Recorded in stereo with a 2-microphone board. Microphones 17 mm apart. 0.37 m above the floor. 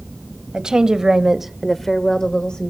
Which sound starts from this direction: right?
A woman speaking, at 0.5 s.